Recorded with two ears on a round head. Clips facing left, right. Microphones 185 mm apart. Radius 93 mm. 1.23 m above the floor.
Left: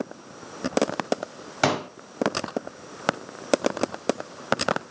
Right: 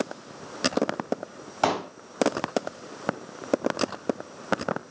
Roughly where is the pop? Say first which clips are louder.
Left 1 dB; left.